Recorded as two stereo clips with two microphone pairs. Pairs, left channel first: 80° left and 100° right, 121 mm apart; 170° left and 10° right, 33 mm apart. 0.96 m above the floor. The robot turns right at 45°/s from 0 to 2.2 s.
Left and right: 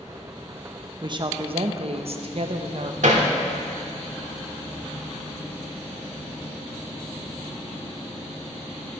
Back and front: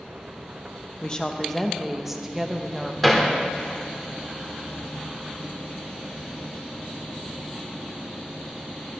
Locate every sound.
1.0 s a woman speaking: 140° right, 0.8 m; by 2.9 s 90° right, 0.8 m
3.0 s hammering: 105° right, 1.3 m